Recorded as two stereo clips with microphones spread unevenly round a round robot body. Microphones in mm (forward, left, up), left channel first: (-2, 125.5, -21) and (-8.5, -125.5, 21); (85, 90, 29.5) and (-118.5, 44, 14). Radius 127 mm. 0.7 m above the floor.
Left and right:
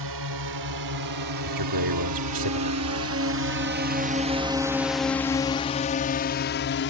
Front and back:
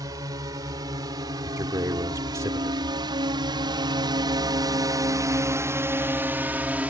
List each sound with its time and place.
0.0 s a drone: 90° right; by 6.9 s 110° left
1.4 s a man speaking: 90° right